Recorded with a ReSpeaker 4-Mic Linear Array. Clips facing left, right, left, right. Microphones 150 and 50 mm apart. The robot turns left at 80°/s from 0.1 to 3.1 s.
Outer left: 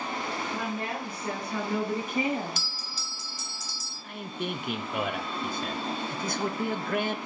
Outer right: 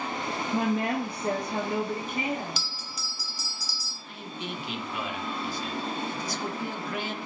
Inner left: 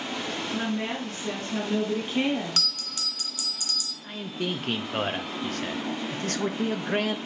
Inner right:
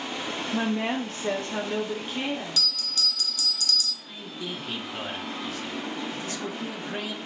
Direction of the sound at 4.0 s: 55° left (ahead or behind).